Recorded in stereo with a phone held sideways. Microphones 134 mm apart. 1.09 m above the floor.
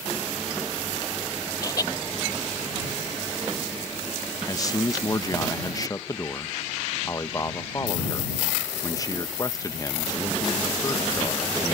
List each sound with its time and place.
1.6 s laughter: 30° left (ahead or behind)
4.5 s a man speaking: 25° left (ahead or behind)